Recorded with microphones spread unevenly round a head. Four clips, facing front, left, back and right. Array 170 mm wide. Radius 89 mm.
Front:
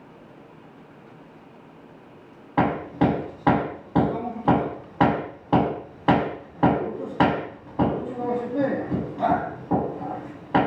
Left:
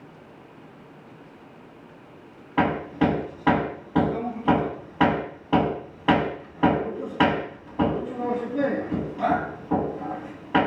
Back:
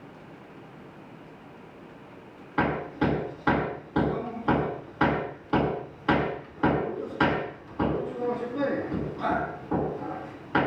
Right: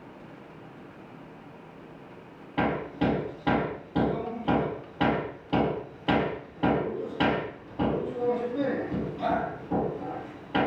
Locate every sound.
2.6 s hammering: 15° left, 4.5 m